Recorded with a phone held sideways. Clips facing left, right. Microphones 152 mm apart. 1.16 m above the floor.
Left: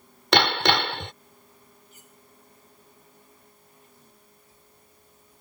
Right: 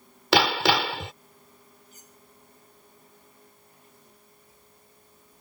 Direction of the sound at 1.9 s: 40° right (ahead or behind).